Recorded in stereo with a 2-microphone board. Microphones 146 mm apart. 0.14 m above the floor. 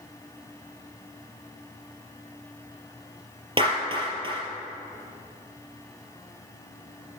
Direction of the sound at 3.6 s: 40° right (ahead or behind).